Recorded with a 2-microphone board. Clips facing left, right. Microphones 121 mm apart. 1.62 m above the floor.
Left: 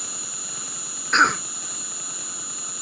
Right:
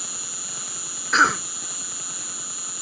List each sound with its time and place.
0.0 s an insect: 60° left (ahead or behind)
1.1 s a cough: 5° right (ahead or behind)